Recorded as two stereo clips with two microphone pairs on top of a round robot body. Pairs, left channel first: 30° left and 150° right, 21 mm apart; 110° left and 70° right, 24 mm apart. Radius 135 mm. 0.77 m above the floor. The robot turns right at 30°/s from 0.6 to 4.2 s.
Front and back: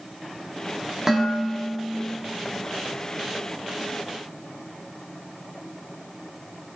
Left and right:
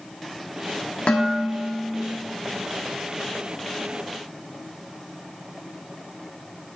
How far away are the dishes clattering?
About 1.3 m.